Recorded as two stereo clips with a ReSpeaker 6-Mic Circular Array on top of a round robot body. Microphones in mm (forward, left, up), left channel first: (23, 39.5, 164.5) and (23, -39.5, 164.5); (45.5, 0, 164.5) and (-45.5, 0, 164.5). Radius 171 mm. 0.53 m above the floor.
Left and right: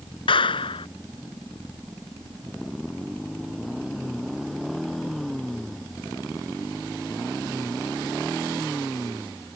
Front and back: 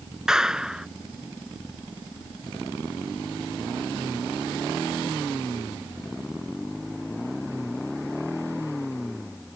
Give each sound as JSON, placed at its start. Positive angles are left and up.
{"t": 0.3, "sound": "a clap", "azimuth_deg": 95}